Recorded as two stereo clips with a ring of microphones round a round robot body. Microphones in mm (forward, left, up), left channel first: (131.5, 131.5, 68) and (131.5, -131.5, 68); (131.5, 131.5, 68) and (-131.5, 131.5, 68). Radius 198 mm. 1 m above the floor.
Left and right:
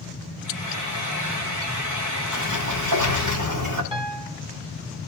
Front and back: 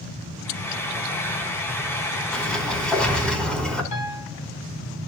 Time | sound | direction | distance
0.4 | frying | 85° right | 2.5 m
2.3 | a sliding door | 90° right | 3.5 m
3.9 | a piano | 20° right | 2 m